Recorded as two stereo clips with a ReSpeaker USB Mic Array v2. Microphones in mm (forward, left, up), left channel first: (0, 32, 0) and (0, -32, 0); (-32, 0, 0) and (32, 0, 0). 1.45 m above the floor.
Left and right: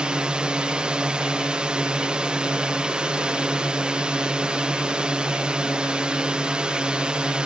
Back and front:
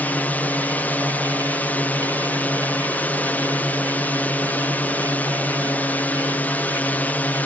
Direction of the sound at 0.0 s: 150° right.